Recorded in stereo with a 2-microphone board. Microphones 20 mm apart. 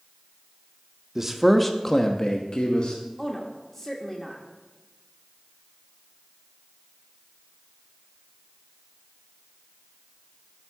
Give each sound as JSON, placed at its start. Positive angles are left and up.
{"t": 1.1, "sound": "a man speaking", "side_deg": -20, "distance_m": 0.6}
{"t": 3.2, "sound": "a woman speaking", "side_deg": 15, "distance_m": 0.8}